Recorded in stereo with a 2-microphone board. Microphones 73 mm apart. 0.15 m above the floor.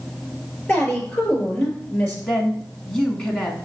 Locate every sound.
0.7 s a woman speaking: 20° left (ahead or behind), 2.5 m
2.3 s a woman speaking: 10° left (ahead or behind), 1.0 m